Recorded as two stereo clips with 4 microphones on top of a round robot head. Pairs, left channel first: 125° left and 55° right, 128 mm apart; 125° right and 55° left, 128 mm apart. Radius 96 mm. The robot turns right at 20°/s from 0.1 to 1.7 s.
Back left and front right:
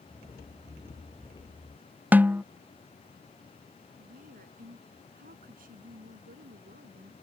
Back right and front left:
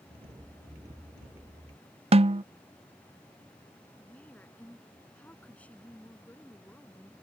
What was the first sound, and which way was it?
A snare drum, 20° left.